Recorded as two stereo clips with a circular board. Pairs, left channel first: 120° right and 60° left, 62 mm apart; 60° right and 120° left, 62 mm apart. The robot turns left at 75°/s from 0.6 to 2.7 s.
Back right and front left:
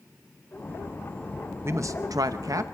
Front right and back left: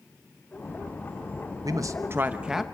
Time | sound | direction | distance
1.6 | a man speaking | 105° left | 0.7 m